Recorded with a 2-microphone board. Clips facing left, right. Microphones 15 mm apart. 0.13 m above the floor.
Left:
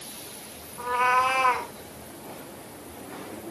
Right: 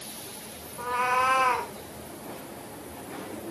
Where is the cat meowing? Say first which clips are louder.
Left 3 dB; 5° right (ahead or behind), 2.5 m.